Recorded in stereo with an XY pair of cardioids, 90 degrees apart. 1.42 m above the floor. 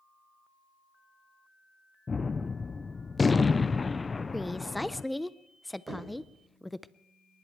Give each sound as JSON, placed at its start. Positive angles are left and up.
{"t": 2.1, "sound": "a gunshot", "azimuth_deg": 30, "distance_m": 0.5}
{"t": 4.3, "sound": "a woman speaking", "azimuth_deg": 5, "distance_m": 0.7}
{"t": 5.9, "sound": "knocking", "azimuth_deg": -35, "distance_m": 5.0}